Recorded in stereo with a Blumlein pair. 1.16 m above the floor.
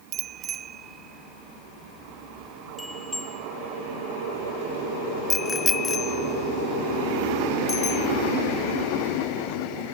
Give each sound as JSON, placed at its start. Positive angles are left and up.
{"t": 0.1, "sound": "a bicycle bell", "azimuth_deg": -30}